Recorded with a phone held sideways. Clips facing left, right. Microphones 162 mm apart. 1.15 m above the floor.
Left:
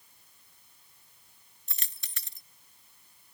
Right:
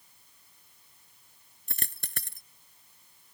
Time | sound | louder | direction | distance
1.7 | a dropped coin | right 10 dB | 55° right (ahead or behind) | ?